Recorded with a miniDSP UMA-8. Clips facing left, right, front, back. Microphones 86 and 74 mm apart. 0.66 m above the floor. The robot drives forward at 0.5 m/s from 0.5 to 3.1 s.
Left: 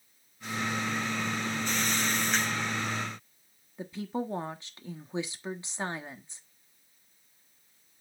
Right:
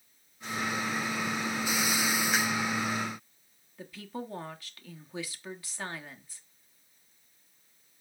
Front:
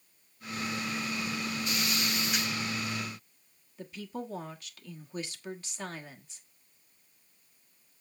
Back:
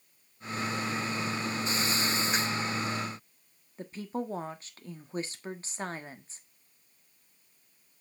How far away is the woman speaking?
About 1.3 m.